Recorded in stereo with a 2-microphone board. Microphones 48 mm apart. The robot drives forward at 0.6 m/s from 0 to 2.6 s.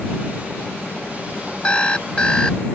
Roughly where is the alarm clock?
Left.